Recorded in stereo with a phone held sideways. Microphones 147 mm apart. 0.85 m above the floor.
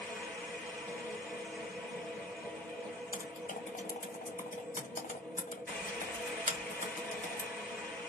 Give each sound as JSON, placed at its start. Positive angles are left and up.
{"t": 0.0, "sound": "a machine running", "side_deg": 5, "distance_m": 1.6}
{"t": 3.1, "sound": "typing on a keyboard", "side_deg": 65, "distance_m": 0.9}